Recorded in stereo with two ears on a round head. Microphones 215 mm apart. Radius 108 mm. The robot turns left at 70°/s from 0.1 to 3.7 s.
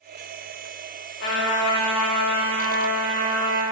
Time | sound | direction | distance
1.2 | a trumpet | 125° left | 1.4 m